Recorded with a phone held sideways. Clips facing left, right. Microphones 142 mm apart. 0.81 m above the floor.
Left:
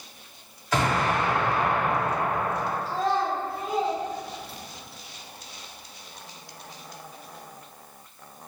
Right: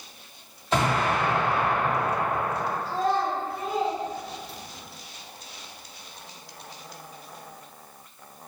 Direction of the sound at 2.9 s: Centre (ahead or behind).